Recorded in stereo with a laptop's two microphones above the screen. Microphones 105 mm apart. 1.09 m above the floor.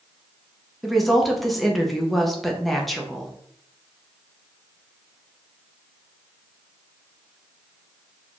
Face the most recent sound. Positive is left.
turn(degrees=0)  # may be behind; listen again after turning